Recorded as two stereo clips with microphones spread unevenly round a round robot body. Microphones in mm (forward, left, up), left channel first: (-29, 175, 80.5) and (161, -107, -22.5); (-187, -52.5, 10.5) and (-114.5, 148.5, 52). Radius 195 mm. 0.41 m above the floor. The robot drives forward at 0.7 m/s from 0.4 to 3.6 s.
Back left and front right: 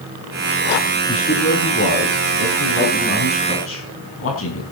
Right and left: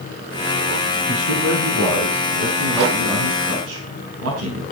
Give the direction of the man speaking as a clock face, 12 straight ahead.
10 o'clock.